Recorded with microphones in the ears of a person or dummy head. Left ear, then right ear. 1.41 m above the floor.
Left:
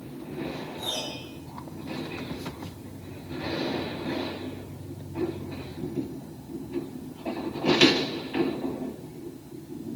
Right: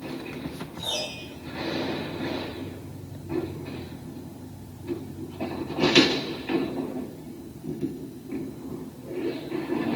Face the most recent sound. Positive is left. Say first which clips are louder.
# right 3 dB
turn(degrees=65)  # may be behind; listen again after turning